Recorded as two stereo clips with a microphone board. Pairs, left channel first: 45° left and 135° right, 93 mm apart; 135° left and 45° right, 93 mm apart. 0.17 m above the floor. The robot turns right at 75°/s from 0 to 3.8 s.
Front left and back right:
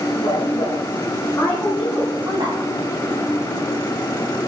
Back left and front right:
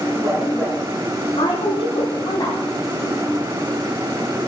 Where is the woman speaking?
20° left, 8.5 m; by 2.6 s 155° right, 8.5 m.